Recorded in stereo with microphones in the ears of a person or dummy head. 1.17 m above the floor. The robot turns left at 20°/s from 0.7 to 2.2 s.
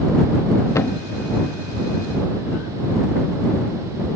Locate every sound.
0.8 s a thud: 10° left (ahead or behind)